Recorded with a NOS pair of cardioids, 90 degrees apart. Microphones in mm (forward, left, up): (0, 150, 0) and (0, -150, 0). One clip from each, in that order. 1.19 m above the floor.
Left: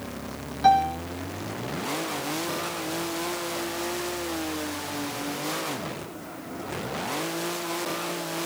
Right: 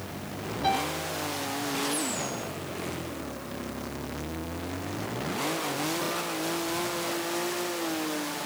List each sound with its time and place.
0.6 s a piano: 70° left, 4 m